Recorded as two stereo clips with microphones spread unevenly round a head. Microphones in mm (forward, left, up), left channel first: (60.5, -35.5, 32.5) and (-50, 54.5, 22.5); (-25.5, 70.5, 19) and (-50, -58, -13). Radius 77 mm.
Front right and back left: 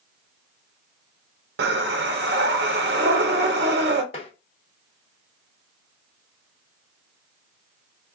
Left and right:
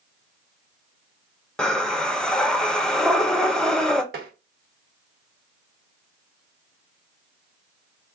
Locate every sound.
1.6 s breathing: 160° left, 0.6 m
4.1 s tapping: 90° right, 0.9 m